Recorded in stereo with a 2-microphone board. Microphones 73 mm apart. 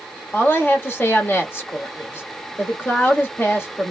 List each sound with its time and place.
0.3 s a woman speaking: 30° left (ahead or behind), 1.5 m